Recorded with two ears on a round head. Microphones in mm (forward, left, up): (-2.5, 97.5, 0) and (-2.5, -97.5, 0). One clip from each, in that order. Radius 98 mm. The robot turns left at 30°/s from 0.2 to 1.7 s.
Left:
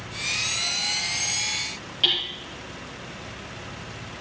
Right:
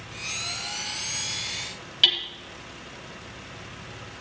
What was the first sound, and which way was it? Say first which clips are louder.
Hammering: right 2 dB; 55° right (ahead or behind).